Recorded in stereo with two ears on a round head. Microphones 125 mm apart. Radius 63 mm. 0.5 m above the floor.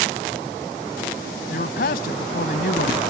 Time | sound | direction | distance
1.5 | a man speaking | 75° left (ahead or behind) | ?